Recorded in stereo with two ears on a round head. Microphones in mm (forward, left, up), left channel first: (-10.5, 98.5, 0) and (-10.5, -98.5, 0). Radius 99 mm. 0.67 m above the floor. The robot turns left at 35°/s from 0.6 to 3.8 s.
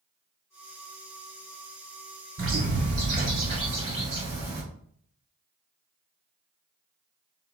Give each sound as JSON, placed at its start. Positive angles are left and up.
{"t": 2.4, "sound": "a bird", "azimuth_deg": -105, "distance_m": 2.0}